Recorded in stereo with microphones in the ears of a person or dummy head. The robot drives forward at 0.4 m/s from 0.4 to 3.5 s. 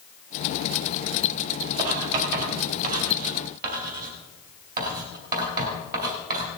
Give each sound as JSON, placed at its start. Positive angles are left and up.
{"t": 1.8, "sound": "writing", "side_deg": -40, "distance_m": 4.5}